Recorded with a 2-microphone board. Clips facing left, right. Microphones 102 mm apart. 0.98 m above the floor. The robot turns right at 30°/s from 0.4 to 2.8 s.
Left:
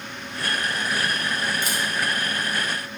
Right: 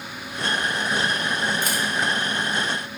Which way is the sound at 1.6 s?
50° right (ahead or behind).